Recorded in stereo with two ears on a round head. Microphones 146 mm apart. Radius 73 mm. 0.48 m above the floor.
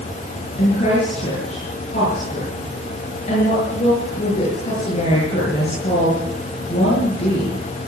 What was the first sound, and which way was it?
A woman speaking, 40° left (ahead or behind).